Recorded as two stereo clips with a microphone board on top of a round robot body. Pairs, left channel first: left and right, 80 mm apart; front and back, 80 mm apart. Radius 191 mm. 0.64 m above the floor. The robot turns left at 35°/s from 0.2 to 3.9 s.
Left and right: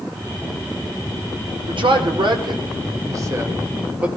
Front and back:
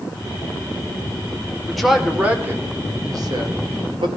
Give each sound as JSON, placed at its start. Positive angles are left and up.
{"t": 1.7, "sound": "a man speaking", "azimuth_deg": -85, "distance_m": 2.5}